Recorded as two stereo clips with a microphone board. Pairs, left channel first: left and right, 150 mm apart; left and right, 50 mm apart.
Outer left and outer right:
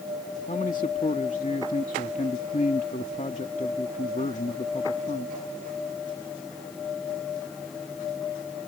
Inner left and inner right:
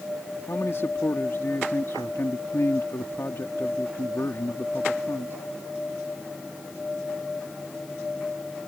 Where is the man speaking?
55° left (ahead or behind).